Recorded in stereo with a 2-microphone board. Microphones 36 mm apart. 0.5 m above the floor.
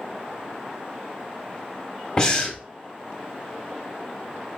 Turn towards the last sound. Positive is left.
turn(degrees=20)  # may be behind; listen again after turning